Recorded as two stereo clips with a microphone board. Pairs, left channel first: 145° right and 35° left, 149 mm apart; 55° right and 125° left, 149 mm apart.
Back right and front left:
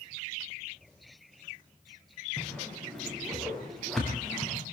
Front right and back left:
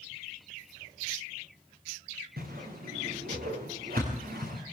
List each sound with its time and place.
2.4 s a whoosh: 125° left, 6.5 m